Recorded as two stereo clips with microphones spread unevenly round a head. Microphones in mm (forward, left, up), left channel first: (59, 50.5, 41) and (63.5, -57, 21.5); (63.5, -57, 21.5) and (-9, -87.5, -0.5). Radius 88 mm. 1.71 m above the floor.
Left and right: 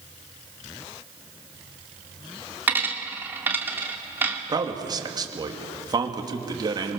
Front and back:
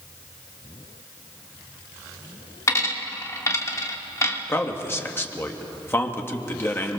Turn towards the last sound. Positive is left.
turn(degrees=-35)